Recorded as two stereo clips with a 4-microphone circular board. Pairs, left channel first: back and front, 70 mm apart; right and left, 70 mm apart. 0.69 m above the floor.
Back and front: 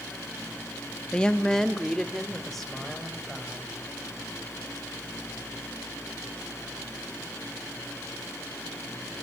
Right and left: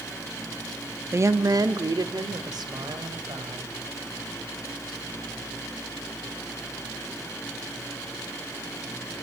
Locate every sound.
1.1 s a woman speaking: 115° left, 0.8 m; by 3.7 s 90° left, 4 m